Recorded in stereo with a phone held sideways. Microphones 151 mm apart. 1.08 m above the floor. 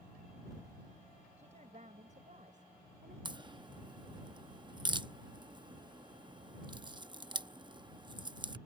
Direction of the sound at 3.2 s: 30° right (ahead or behind).